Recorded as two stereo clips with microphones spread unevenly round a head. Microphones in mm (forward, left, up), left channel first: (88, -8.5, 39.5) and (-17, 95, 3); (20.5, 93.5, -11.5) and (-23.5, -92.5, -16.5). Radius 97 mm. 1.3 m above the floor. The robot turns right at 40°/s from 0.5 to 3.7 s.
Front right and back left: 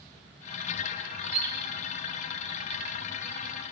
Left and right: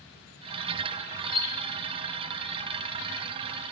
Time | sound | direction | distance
1.2 | a bird | 135° left | 2 m